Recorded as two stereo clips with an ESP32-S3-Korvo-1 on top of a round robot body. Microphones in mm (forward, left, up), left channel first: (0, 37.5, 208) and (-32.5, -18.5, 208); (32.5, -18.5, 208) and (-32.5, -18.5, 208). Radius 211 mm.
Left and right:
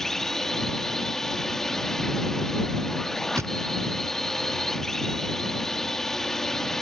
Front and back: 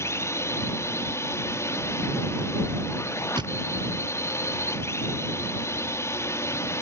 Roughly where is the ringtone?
I don't hear a ringtone.